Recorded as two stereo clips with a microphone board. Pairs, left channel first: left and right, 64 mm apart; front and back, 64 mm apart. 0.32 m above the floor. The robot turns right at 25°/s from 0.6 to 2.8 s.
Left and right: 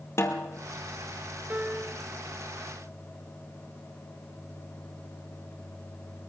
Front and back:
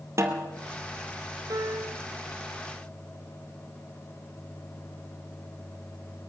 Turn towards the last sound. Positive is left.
turn(degrees=-120)